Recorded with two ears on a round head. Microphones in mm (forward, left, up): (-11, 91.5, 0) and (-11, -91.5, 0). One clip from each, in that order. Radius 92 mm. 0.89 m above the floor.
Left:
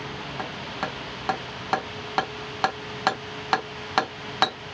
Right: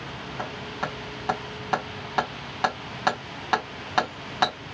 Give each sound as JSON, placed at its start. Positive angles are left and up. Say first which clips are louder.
{"t": 0.4, "sound": "hammering", "louder": "even", "side_deg": 25, "distance_m": 2.0}